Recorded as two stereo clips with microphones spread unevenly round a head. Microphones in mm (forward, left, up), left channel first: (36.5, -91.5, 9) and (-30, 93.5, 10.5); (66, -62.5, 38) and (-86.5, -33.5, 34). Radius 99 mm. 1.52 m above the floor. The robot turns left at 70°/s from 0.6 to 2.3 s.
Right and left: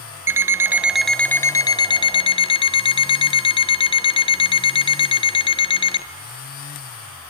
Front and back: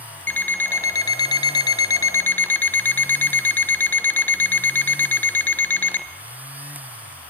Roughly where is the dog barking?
No dog barking in this recording.